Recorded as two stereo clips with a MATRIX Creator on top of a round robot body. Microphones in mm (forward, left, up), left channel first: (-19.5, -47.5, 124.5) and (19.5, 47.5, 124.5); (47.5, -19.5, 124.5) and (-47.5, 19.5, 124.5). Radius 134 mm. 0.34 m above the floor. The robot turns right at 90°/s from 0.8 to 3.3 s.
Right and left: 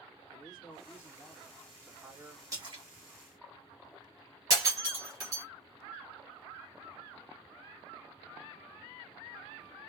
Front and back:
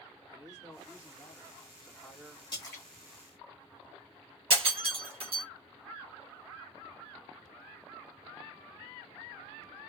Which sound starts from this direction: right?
A man speaking, at 0.3 s.